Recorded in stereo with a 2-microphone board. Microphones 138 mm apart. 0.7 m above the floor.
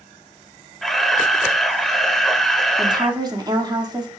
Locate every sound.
0.8 s a camera shutter: centre (ahead or behind), 1.1 m
2.8 s a woman speaking: 30° right (ahead or behind), 1.8 m